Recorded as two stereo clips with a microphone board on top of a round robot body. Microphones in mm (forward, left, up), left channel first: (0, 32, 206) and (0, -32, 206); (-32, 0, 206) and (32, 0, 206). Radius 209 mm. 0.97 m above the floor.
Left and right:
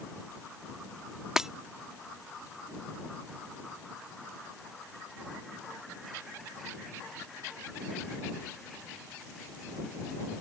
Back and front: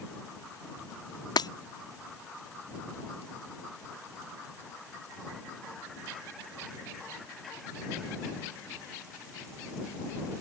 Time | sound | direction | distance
1.4 | breaking glass | 170° right | ?